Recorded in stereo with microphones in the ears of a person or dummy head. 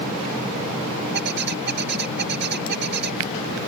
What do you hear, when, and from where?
1.1 s a bird: 65° right (ahead or behind)